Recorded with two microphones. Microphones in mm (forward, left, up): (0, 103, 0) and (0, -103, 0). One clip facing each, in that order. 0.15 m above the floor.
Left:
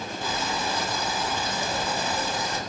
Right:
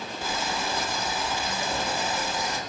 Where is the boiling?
10° right (ahead or behind), 1.5 m.